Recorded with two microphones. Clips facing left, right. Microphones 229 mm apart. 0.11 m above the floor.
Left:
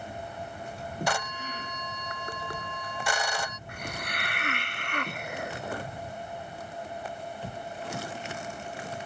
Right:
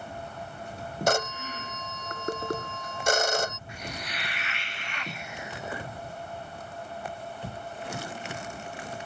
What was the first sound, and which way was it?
A phone ringing, 45° right (ahead or behind).